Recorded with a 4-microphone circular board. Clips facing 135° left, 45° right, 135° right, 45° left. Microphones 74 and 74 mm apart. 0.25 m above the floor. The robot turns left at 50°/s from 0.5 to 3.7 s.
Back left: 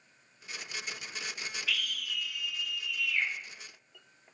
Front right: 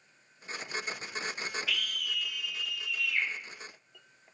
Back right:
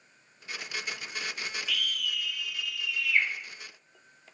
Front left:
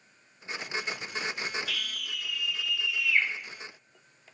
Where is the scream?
40° left, 4.5 m; by 3.3 s 40° right, 4.5 m.